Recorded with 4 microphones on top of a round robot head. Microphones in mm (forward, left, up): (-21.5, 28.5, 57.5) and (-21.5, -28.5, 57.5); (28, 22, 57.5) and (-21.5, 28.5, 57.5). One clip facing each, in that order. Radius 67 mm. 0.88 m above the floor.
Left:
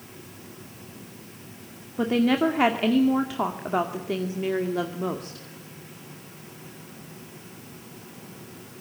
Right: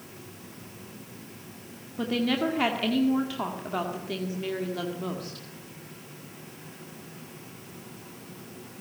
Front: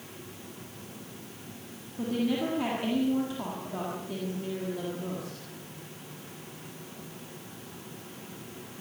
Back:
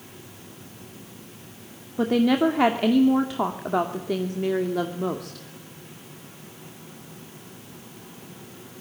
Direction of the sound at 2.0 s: 155° left.